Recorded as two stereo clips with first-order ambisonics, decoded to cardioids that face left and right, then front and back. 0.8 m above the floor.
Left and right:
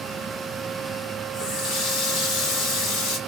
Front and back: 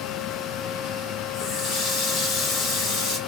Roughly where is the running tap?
Ahead left.